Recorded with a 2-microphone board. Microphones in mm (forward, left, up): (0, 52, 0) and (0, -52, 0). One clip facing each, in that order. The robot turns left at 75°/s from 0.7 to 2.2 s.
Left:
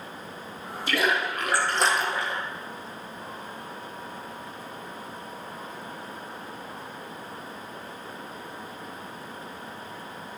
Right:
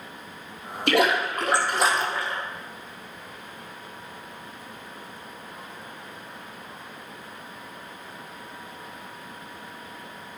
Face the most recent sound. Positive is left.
turn(degrees=160)